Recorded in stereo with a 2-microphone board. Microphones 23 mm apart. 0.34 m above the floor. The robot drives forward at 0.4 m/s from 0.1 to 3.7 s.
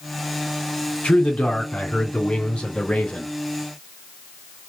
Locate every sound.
1.0 s a man speaking: 70° left (ahead or behind), 2 m; by 3.3 s 60° left (ahead or behind), 2.5 m